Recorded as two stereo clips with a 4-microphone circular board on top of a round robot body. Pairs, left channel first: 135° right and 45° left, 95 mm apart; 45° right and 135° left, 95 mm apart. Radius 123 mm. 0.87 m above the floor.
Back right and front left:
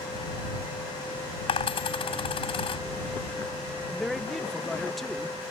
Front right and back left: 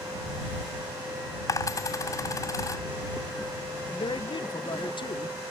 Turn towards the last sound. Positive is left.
turn(degrees=-45)